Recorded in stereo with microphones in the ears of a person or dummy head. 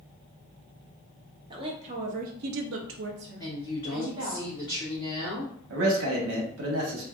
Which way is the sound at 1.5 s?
25° right (ahead or behind).